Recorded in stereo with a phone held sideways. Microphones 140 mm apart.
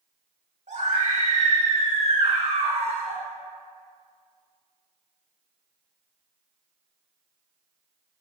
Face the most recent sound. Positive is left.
turn(degrees=-40)  # may be behind; listen again after turning